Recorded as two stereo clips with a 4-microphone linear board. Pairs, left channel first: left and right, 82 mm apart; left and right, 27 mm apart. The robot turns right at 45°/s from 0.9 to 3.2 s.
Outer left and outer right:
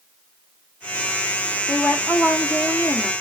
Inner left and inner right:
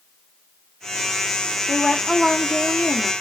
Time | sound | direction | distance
1.7 | a woman speaking | 25° left (ahead or behind) | 0.8 m